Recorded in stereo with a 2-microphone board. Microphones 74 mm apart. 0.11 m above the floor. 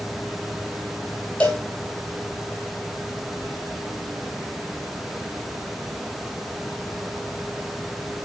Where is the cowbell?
15° left (ahead or behind), 0.9 m.